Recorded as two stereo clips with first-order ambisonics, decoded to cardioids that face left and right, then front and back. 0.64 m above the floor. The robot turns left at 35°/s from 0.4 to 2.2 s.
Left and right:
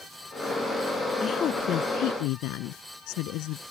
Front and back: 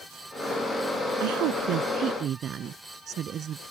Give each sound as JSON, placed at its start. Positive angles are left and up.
{"t": 1.2, "sound": "a woman speaking", "azimuth_deg": 160}